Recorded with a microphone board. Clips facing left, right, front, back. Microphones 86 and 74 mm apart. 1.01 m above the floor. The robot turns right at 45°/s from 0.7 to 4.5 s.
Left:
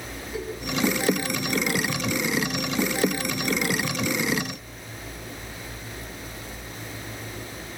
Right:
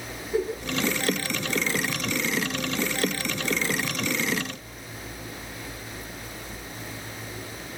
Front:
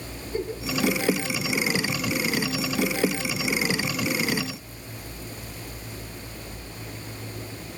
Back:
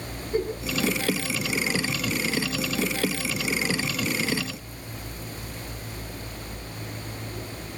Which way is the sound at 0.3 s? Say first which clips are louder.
Right 7 dB, back 3 dB; 145° right.